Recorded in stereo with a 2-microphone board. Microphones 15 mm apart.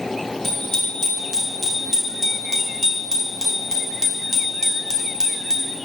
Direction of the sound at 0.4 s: 40° left (ahead or behind).